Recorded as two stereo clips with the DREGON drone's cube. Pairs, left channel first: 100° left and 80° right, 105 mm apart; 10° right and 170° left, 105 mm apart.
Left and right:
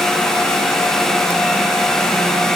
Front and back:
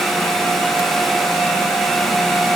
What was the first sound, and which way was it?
Only background noise.